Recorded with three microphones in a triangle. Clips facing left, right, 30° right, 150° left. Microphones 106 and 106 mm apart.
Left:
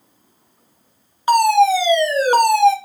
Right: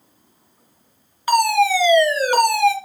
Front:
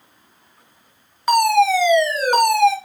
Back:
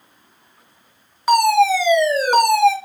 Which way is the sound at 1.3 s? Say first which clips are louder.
Left 3 dB, back 1 dB; 65° left.